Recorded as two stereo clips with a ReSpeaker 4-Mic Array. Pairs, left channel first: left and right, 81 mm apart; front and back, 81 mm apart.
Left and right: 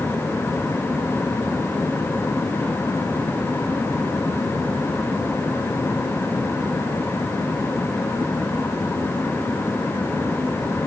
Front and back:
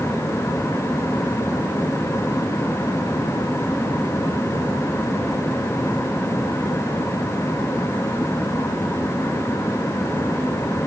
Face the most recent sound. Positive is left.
No sound to turn to.